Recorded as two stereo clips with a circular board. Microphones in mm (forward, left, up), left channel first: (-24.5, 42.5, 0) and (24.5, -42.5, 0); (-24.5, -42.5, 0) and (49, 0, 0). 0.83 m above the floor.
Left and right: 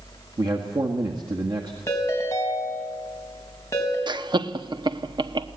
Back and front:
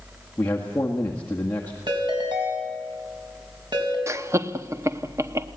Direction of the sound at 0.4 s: 85° right.